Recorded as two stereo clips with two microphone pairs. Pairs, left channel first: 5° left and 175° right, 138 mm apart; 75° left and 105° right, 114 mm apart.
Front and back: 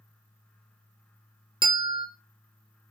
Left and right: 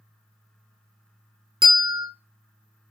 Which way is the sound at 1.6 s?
135° right.